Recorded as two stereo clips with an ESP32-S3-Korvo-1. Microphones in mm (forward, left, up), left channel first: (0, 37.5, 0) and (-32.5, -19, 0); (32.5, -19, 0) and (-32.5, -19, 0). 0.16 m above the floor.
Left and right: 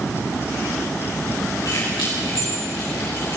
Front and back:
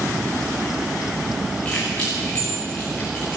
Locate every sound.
1.6 s keys jangling: 70° left, 9.5 m; by 3.4 s 65° left, 9.5 m